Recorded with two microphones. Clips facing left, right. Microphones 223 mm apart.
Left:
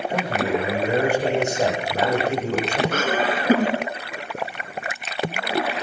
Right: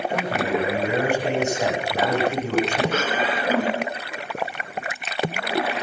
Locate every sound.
0.1 s a man speaking: 40° left (ahead or behind), 9.5 m
2.9 s laughter: 50° left (ahead or behind), 2.5 m